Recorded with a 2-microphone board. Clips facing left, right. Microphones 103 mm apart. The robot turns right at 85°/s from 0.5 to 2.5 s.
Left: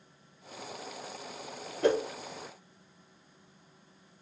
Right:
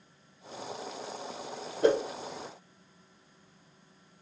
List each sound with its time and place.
1.8 s a whoosh: 20° right (ahead or behind), 1.8 m; by 2.0 s 35° right (ahead or behind), 1.8 m